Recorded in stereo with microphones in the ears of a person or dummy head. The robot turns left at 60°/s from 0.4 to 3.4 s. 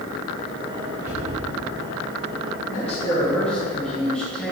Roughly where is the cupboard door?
Centre.